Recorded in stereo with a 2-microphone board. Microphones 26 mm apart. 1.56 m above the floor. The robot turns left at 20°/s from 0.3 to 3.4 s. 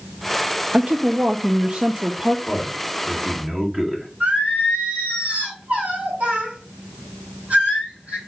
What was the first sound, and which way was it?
A woman speaking, 75° right.